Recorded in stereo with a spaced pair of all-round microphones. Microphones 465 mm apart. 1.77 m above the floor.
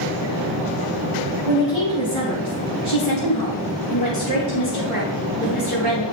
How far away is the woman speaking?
About 2.5 m.